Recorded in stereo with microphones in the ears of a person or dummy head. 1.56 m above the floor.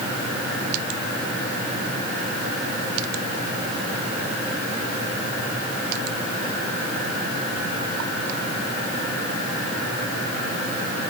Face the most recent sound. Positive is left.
No sound to turn to.